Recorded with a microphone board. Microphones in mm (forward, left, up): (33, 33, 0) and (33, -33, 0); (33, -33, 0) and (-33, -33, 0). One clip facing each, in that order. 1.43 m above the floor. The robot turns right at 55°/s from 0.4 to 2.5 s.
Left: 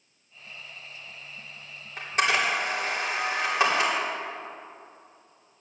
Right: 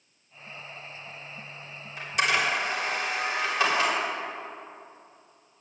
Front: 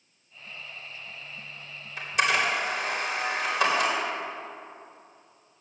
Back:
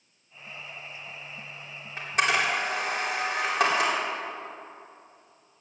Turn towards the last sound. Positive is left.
turn(degrees=155)